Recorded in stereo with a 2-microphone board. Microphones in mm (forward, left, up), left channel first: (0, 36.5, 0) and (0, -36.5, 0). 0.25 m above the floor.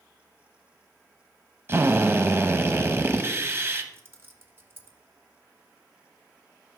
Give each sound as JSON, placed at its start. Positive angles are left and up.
{"t": 1.7, "sound": "a drill", "side_deg": -35, "distance_m": 0.7}
{"t": 3.9, "sound": "keys jangling", "side_deg": -30, "distance_m": 0.8}